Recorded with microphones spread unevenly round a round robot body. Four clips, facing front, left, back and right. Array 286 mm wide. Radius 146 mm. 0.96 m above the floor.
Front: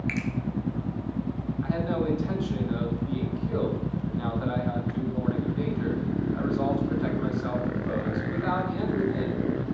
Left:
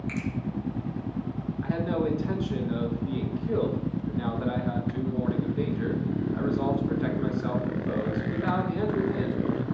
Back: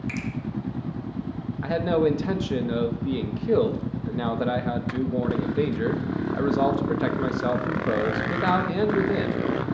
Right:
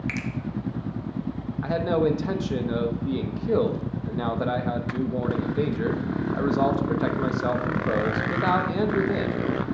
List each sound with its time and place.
0.1 s a finger snap: 85° right, 0.8 m
1.6 s a man speaking: 145° right, 1.0 m